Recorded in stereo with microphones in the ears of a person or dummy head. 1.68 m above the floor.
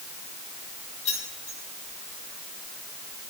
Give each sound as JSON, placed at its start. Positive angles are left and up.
{"t": 1.1, "sound": "keys jangling", "side_deg": 40, "distance_m": 3.5}